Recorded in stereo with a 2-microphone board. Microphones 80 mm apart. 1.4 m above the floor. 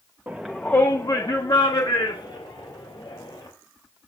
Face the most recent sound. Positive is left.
turn(degrees=80)